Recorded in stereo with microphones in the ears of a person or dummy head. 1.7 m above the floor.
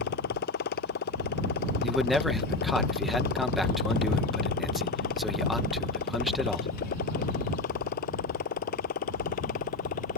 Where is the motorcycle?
55° left (ahead or behind); by 10.2 s 45° left (ahead or behind).